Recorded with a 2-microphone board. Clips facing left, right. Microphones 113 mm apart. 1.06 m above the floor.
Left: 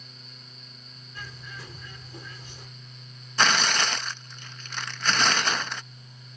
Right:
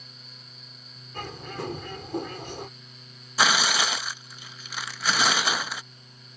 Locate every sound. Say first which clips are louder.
1.1 s a bird: right 9 dB; 65° right (ahead or behind)
3.4 s tearing paper: even; 5° right (ahead or behind)